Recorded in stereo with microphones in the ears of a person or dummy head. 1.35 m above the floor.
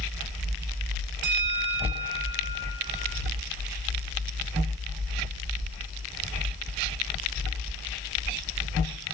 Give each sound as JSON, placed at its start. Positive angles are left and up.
{"t": 1.2, "sound": "a bell", "side_deg": -40, "distance_m": 1.0}